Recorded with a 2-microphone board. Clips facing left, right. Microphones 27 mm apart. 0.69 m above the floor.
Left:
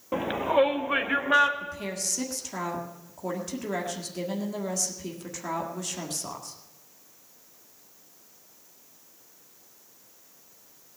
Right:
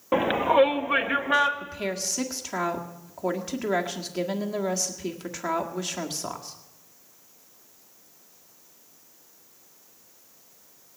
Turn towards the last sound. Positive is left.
turn(degrees=-25)  # may be behind; listen again after turning